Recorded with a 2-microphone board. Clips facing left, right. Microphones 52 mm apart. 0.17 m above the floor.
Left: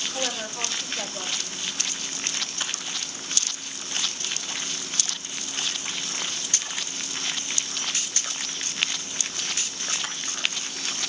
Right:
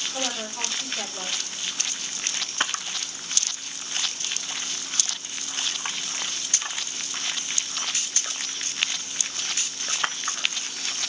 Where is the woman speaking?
5° right (ahead or behind), 6.5 m.